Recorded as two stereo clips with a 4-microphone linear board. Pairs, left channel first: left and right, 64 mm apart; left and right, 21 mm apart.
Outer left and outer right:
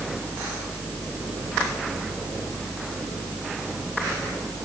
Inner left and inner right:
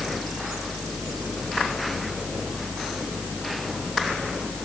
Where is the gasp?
I don't hear a gasp.